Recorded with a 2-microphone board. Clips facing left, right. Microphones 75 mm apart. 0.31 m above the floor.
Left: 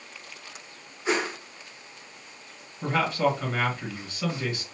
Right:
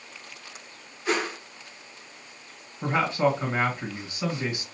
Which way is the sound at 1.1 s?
25° left (ahead or behind).